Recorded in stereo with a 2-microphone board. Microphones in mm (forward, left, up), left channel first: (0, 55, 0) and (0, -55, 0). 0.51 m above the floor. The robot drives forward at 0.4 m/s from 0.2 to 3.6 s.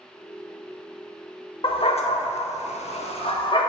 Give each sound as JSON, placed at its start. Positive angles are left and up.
{"t": 1.6, "sound": "a dog barking", "side_deg": 50, "distance_m": 0.6}